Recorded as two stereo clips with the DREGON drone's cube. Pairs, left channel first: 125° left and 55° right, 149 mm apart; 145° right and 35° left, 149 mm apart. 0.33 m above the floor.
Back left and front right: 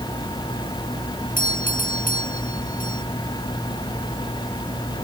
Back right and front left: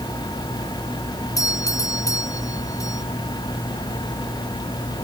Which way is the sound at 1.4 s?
145° left.